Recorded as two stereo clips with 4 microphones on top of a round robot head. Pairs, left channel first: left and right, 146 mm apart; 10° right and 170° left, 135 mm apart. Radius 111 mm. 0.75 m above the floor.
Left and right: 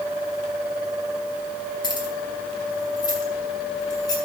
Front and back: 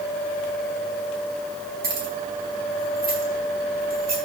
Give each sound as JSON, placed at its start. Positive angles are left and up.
{"t": 1.8, "sound": "keys jangling", "azimuth_deg": 150, "distance_m": 5.5}